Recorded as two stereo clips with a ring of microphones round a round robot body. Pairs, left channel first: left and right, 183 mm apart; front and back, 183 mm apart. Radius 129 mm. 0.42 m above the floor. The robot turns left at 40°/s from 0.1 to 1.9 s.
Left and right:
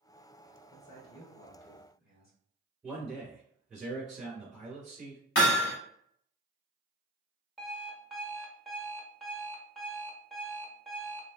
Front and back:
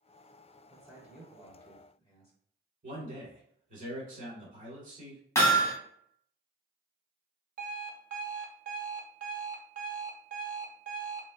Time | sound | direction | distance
0.7 | a man speaking | 115° left | 1.4 m
2.8 | a man speaking | straight behind | 1.8 m
5.3 | hammering | 75° left | 1.5 m
7.6 | an alarm clock | straight behind | 0.5 m